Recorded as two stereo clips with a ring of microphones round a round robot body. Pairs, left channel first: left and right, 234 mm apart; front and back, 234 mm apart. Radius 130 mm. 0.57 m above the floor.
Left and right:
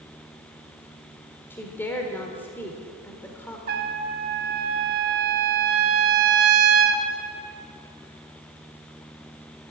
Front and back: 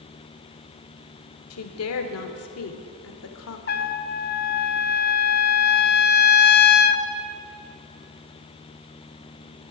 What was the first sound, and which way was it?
A woman speaking, 10° left.